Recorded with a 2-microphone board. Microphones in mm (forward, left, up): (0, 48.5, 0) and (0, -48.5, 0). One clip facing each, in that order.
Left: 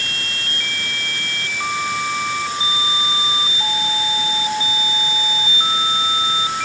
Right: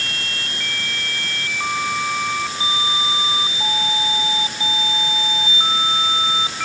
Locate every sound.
Only background noise.